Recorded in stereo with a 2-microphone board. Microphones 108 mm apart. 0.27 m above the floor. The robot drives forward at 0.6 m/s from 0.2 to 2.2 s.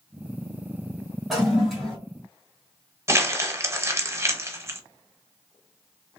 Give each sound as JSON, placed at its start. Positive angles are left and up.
{"t": 1.3, "sound": "a toilet flushing", "side_deg": 0, "distance_m": 1.9}
{"t": 3.1, "sound": "crumpling", "side_deg": -25, "distance_m": 0.7}